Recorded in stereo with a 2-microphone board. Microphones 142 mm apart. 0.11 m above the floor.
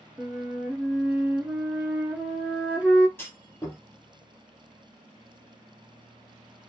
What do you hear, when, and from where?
0.2 s a flute: 10° right (ahead or behind), 0.9 m
3.2 s a clunk: 15° left (ahead or behind), 2 m